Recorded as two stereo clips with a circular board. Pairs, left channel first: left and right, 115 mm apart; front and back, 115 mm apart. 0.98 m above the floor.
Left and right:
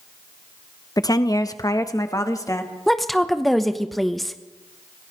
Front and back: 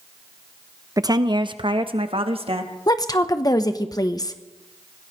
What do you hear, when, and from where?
1.0 s a woman speaking: 130° left, 0.7 m; by 2.7 s 150° left, 1.7 m
2.9 s a woman speaking: 5° left, 0.9 m